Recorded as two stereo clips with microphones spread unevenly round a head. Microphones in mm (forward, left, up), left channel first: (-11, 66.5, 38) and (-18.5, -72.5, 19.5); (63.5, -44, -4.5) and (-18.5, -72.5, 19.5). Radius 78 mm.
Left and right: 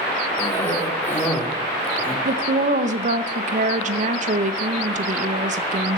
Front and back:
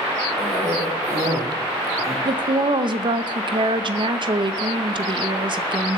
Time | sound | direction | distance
0.4 | a cough | 160° left | 2.5 m
2.2 | a woman speaking | 130° right | 0.7 m